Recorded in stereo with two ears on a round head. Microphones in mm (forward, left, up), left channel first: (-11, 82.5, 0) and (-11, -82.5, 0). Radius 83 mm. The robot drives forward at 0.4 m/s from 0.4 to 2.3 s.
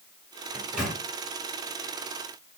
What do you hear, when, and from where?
0.5 s a microwave: 5° right (ahead or behind), 1.6 m